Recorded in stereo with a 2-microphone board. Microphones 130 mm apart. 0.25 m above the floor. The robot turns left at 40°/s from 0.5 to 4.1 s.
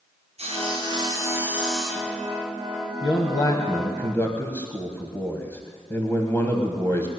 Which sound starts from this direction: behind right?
Sawing, at 0.4 s.